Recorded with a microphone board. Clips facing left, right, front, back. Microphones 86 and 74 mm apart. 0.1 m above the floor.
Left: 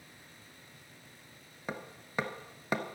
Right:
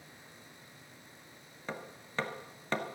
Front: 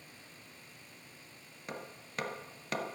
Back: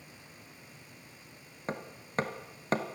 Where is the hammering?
160° left, 1.4 m.